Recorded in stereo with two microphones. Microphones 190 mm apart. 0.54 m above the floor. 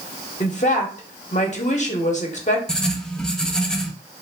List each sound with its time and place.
0.4 s a woman speaking: 40° left (ahead or behind), 0.9 m
2.7 s writing: 5° left (ahead or behind), 0.7 m